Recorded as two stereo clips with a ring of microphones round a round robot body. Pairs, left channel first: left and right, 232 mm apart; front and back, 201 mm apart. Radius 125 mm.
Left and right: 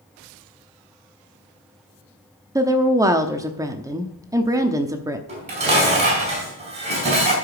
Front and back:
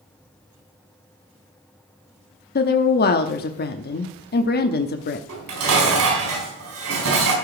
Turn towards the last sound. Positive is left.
turn(degrees=-155)